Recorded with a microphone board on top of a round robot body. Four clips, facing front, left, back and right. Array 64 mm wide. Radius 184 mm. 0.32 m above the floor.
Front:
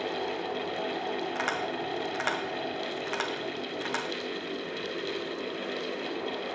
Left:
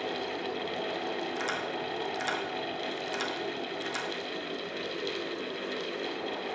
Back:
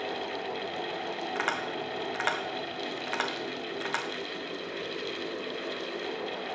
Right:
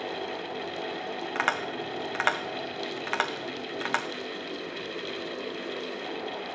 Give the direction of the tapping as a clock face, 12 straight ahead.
3 o'clock.